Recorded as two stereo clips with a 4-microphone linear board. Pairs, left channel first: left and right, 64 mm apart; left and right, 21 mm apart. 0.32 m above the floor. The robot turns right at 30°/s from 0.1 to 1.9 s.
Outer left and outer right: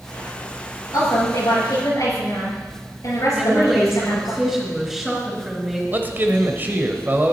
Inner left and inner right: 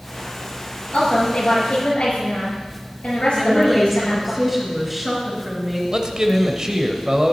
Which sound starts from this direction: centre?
A woman speaking, at 3.3 s.